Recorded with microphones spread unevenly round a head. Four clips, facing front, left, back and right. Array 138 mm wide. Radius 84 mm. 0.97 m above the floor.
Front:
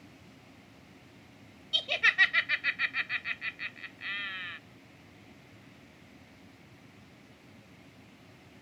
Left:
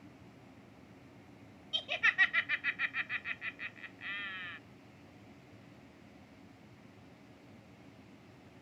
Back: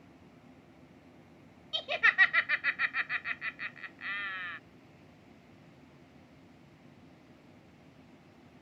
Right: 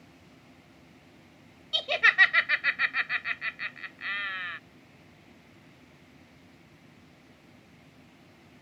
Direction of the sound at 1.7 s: 95° right.